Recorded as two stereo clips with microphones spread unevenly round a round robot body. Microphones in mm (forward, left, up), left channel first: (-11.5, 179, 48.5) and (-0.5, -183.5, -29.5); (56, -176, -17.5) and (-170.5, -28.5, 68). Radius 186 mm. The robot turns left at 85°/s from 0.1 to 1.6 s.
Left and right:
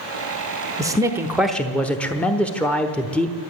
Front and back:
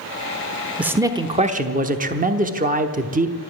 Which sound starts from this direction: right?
A man speaking, at 0.8 s.